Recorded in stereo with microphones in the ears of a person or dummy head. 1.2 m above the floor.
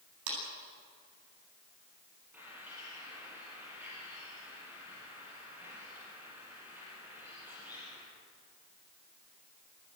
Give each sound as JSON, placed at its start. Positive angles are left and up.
{"t": 0.3, "sound": "a clap", "side_deg": -75, "distance_m": 9.5}
{"t": 2.3, "sound": "a bird", "side_deg": -10, "distance_m": 7.0}